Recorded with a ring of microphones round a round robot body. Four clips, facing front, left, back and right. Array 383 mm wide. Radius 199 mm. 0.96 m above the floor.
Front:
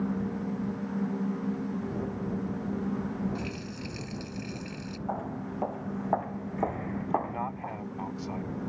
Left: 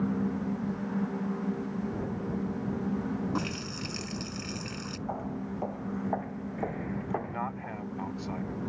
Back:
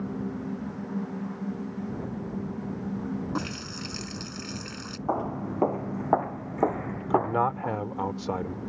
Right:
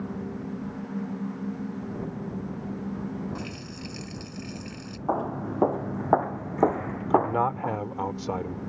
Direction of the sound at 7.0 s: 140° right.